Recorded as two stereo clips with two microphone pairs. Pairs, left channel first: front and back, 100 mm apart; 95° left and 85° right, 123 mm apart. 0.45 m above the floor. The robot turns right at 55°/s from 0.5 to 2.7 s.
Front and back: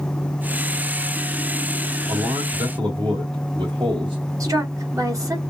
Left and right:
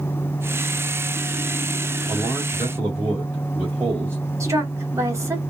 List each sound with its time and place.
2.1 s a man speaking: 170° left, 2 m; by 4.2 s 155° right, 2 m
4.4 s a woman speaking: 145° right, 1.7 m